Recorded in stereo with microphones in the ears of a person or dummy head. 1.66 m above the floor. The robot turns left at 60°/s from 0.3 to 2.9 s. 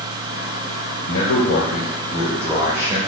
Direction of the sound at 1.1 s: 85° left.